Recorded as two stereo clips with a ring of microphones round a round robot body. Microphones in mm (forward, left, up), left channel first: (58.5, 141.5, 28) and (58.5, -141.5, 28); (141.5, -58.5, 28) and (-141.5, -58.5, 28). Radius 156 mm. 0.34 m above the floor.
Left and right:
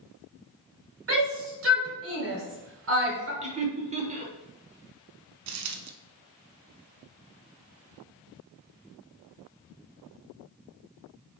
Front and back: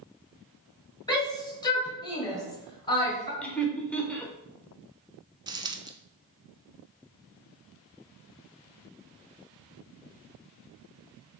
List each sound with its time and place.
1.1 s a shout: 70° right, 1.6 m
3.4 s laughter: 80° right, 0.9 m
5.5 s a dropped coin: 105° right, 0.5 m